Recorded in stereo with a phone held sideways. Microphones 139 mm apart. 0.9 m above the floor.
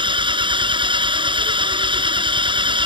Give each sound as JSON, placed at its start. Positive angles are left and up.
{"t": 0.0, "sound": "an engine running", "side_deg": -35}